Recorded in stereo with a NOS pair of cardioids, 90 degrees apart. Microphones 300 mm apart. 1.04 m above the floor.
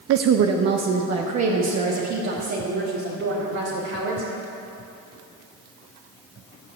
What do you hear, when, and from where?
0.1 s a woman speaking: 50° right, 0.5 m; by 4.3 s 70° right, 3 m